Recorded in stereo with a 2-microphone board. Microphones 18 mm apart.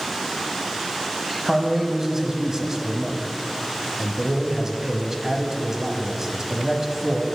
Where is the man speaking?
25° right (ahead or behind), 1.1 m.